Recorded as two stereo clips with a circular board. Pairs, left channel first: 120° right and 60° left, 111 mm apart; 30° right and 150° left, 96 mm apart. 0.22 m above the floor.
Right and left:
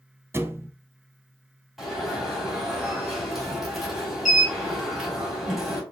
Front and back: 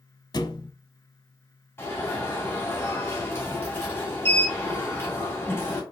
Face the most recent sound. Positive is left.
turn(degrees=-30)